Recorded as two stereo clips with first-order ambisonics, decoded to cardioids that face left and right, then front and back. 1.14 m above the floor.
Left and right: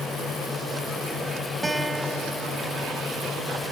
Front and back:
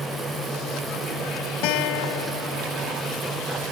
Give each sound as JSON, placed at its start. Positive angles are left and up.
{"t": 1.6, "sound": "a guitar", "azimuth_deg": -10}